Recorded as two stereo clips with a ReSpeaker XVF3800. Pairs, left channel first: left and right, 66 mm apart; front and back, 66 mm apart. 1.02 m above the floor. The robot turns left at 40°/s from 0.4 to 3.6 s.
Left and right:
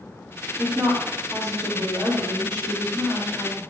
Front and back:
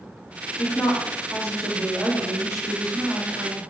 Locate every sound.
0.6 s a woman speaking: 15° right, 3 m; by 3.6 s 135° right, 3 m